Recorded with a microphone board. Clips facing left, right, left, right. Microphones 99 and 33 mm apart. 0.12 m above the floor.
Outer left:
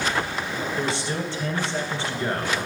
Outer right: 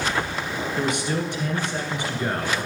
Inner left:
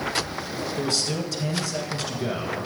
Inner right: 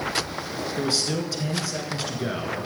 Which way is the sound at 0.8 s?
15° right (ahead or behind).